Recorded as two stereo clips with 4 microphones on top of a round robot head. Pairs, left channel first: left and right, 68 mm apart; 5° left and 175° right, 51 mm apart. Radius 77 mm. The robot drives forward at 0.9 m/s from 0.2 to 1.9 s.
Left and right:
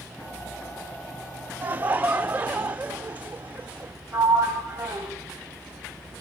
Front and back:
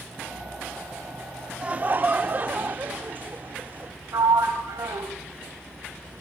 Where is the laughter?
130° right, 0.9 m; by 3.9 s 145° right, 1.0 m.